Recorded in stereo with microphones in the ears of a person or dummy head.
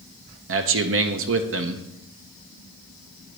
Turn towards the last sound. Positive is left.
turn(degrees=-65)  # may be behind; listen again after turning